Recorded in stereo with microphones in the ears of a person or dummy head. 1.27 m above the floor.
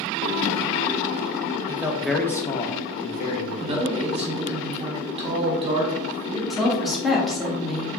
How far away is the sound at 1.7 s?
About 0.6 m.